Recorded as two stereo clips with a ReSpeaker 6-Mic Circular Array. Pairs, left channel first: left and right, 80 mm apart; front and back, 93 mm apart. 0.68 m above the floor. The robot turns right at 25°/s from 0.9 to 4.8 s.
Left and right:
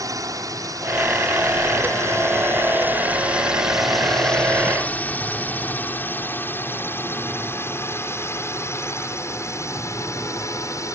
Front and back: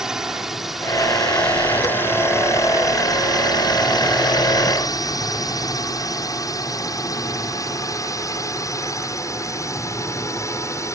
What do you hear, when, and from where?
0.0 s a drone: 100° right; by 11.0 s 50° left